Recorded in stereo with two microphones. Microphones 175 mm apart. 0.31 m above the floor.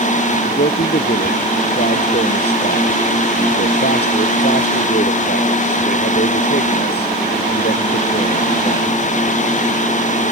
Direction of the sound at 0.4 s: 70° left (ahead or behind).